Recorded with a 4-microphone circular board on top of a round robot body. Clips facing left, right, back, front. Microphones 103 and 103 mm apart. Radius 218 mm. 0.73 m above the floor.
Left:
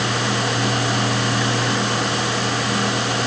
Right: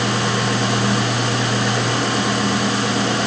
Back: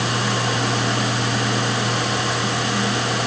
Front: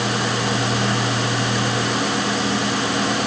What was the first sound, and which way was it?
Only background noise.